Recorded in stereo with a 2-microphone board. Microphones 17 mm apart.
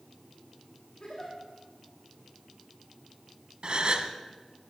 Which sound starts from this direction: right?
A gasp, at 3.6 s.